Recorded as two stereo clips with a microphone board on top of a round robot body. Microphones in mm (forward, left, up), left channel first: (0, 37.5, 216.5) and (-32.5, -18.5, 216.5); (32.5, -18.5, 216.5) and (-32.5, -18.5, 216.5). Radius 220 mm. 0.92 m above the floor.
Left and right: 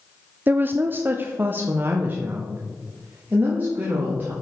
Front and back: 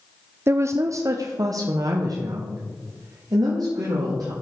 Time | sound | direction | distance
0.5 | a woman speaking | 165° right | 0.8 m